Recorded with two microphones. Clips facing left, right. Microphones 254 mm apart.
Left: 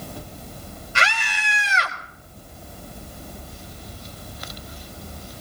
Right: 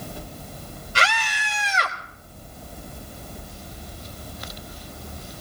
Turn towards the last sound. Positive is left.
turn(degrees=-55)  # may be behind; listen again after turning